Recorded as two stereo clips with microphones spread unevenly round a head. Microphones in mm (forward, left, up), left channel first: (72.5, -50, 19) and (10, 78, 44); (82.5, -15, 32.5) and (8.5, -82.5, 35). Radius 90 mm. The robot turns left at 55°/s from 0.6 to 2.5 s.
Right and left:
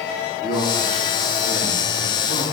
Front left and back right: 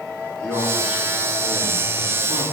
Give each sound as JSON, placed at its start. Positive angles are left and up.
{"t": 0.4, "sound": "a man speaking", "azimuth_deg": -40, "distance_m": 2.5}